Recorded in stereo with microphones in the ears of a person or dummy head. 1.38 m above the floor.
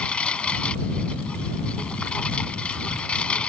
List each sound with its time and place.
0.0 s a lawn mower: 10° left (ahead or behind)